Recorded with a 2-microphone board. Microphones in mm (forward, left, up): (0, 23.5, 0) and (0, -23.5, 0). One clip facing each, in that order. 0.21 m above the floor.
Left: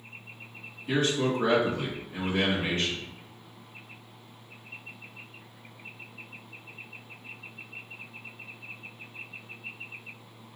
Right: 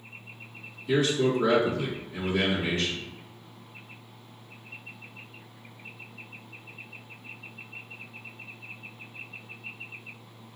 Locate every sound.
0.9 s a man speaking: 45° left (ahead or behind), 2 m